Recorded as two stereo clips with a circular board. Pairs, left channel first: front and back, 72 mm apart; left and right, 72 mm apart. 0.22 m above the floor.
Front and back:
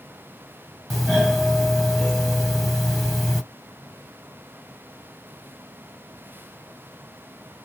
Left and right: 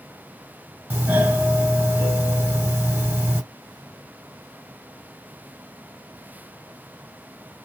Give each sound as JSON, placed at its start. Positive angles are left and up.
{"t": 0.9, "sound": "a doorbell", "azimuth_deg": -85, "distance_m": 1.4}